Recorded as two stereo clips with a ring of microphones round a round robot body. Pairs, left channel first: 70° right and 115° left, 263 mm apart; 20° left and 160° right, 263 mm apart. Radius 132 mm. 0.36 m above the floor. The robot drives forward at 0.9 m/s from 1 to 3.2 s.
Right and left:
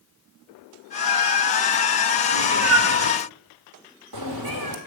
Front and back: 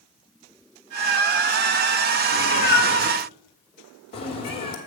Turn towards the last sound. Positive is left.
turn(degrees=95)